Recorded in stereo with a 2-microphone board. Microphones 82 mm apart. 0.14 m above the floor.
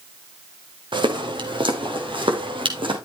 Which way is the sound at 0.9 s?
65° right (ahead or behind).